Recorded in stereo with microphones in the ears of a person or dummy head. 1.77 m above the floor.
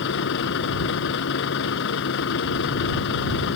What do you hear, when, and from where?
0.0 s a vehicle: 65° left (ahead or behind)